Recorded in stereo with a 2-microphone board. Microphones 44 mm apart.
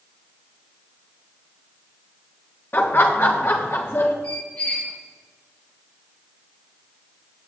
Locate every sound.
2.7 s laughter: 45° left (ahead or behind), 1.0 m; by 4.1 s 65° left (ahead or behind), 1.6 m
4.2 s a squeak: 45° left (ahead or behind), 3.5 m